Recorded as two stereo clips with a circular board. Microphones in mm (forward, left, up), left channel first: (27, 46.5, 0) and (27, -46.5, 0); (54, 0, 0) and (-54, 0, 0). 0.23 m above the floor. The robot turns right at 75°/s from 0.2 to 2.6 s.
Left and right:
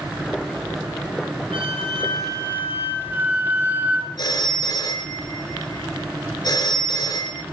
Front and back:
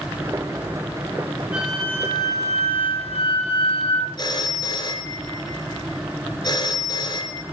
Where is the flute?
100° right, 8 m; by 4.1 s 20° right, 8 m.